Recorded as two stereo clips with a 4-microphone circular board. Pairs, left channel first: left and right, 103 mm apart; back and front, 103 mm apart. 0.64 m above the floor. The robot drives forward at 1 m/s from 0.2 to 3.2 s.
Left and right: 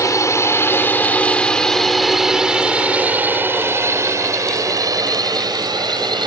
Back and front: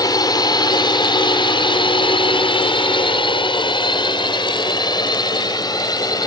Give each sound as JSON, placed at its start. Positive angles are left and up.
{"t": 0.0, "sound": "a drone", "azimuth_deg": 140}